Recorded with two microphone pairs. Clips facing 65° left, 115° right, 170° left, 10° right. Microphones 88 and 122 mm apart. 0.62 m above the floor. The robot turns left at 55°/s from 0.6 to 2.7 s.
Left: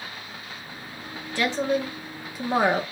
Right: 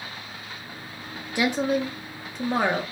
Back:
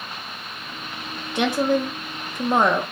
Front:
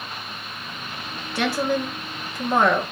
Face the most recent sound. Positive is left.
turn(degrees=135)